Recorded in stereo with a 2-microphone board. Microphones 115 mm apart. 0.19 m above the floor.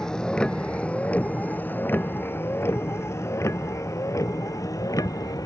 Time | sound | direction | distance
0.0 | a vehicle | 5° left (ahead or behind) | ?